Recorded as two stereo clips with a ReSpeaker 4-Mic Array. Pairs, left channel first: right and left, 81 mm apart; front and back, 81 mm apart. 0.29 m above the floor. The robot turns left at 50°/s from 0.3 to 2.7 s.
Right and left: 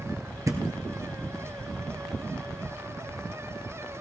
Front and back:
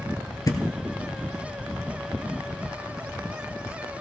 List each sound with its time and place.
0.5 s a thud: 40° left, 1.4 m; by 0.6 s 35° left, 1.4 m